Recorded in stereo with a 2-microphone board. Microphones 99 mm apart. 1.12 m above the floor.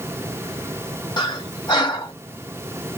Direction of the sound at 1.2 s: 40° left (ahead or behind).